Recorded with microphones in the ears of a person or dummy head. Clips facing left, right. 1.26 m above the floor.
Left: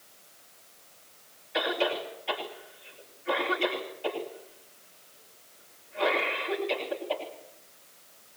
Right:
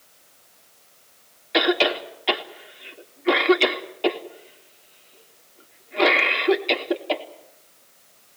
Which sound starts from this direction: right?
A cough, at 1.5 s.